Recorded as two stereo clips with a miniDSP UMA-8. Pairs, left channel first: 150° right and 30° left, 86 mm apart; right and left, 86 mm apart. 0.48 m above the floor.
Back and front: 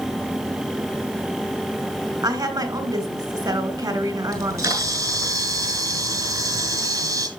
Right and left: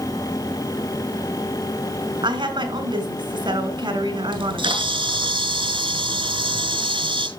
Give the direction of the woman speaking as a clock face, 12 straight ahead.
10 o'clock.